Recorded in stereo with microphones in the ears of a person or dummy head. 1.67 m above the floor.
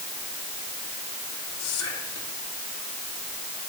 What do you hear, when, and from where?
1.6 s whispering: 85° left, 3.5 m